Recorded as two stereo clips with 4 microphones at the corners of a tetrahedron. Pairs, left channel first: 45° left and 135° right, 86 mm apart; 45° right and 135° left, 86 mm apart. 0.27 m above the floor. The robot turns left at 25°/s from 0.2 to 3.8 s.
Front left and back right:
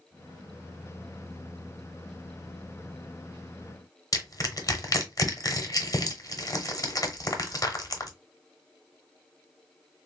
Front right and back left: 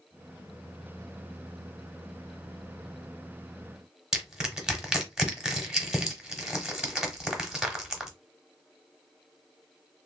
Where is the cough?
No cough in this recording.